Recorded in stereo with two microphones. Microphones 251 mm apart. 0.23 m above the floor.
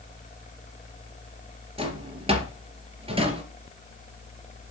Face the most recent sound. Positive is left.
turn(degrees=-25)  # may be behind; listen again after turning